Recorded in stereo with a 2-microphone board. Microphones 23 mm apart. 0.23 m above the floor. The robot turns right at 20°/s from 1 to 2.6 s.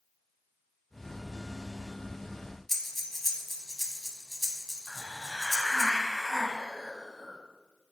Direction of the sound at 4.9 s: Centre (ahead or behind).